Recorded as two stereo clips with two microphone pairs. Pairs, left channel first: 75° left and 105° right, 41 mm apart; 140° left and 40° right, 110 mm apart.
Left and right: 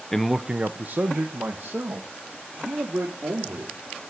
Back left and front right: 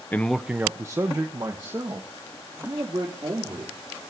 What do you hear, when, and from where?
0.1 s a man speaking: 100° left, 0.5 m; by 3.8 s 85° right, 3.5 m